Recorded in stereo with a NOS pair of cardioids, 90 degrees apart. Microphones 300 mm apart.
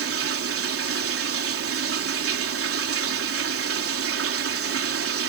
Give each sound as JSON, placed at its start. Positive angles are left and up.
{"t": 0.0, "sound": "running water", "azimuth_deg": -50}